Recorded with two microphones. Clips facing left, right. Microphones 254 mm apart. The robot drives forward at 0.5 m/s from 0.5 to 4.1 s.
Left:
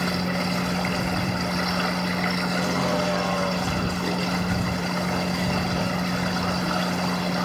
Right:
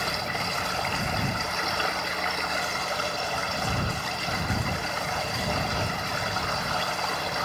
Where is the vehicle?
80° left.